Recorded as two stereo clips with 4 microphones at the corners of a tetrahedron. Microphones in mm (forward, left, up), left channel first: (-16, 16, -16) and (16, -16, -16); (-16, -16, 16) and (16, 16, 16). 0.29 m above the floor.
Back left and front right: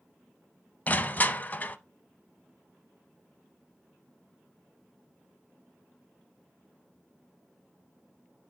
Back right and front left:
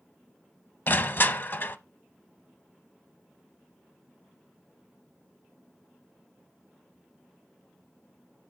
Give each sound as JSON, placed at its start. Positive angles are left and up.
{"t": 0.9, "sound": "crushing", "azimuth_deg": -175, "distance_m": 0.7}